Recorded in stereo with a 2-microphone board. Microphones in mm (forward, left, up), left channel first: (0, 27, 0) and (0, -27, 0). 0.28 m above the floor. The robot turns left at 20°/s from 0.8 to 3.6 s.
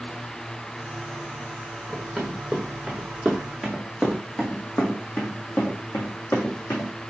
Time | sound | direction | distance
1.9 | running footsteps | 10° left (ahead or behind) | 1.6 m